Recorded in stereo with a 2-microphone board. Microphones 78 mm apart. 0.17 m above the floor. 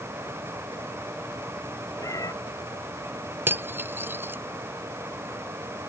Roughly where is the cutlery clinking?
Right.